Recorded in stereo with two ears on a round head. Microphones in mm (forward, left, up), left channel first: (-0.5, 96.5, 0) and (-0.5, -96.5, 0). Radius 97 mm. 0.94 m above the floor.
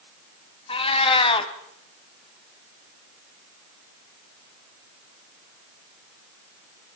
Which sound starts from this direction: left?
A cat meowing, at 0.7 s.